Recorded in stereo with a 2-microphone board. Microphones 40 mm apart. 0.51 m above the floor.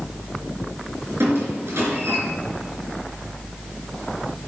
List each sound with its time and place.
1.2 s a squeak: 80° right, 3.5 m